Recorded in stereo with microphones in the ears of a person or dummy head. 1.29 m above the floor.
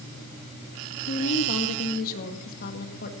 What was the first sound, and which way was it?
A woman speaking, 50° left (ahead or behind).